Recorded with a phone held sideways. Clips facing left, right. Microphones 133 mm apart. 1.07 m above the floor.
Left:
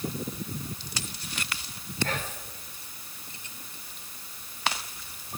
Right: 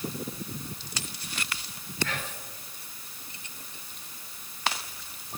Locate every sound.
2.0 s whispering: 50° left (ahead or behind), 4 m